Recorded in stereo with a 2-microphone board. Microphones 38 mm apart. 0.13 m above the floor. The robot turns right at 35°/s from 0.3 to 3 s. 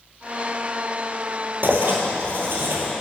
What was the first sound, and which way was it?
Writing, 115° right.